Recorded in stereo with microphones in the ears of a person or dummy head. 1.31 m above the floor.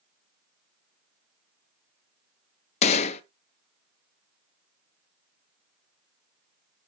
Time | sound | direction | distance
2.8 | a gunshot | 40° left (ahead or behind) | 0.7 m